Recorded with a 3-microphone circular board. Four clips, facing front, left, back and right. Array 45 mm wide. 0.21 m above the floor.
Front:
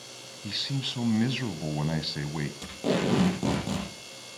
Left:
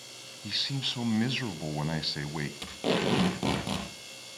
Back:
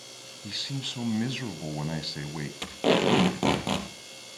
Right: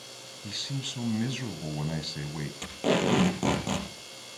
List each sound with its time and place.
0.4 s a man speaking: 65° left, 1.1 m
2.6 s tape being pulled: 165° right, 3.5 m